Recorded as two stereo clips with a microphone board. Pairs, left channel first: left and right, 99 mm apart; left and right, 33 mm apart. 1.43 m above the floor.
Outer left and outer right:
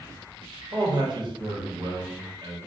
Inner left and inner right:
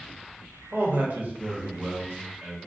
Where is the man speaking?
50° right (ahead or behind), 0.9 m.